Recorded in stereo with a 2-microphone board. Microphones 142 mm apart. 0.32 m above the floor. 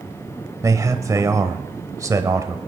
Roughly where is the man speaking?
Right.